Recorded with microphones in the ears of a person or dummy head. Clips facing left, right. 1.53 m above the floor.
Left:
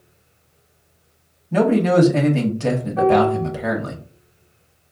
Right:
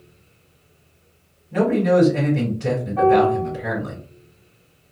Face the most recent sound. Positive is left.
turn(degrees=20)  # may be behind; listen again after turning